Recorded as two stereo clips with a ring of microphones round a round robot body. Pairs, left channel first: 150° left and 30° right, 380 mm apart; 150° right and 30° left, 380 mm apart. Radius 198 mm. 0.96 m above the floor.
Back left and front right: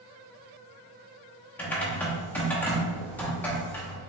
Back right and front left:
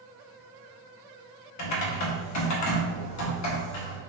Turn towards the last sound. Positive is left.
turn(degrees=-125)